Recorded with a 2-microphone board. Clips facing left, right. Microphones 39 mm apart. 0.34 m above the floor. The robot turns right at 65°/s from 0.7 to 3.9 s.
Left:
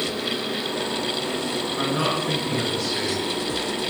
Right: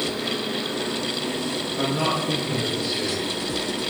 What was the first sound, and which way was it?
A man speaking, 25° left.